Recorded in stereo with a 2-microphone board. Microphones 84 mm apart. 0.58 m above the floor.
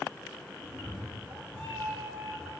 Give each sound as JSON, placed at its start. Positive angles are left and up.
{"t": 0.6, "sound": "a cat meowing", "side_deg": -80, "distance_m": 3.0}